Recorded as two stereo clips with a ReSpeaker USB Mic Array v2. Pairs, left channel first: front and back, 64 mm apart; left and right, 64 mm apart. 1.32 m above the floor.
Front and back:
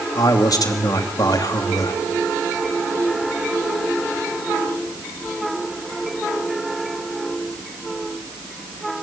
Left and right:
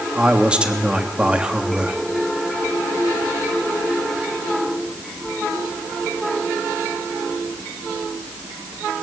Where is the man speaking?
15° right, 2.5 m.